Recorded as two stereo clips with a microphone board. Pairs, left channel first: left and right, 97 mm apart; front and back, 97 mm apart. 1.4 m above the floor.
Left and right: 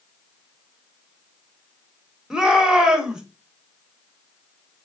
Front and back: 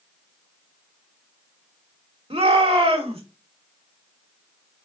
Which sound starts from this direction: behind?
A shout, at 2.3 s.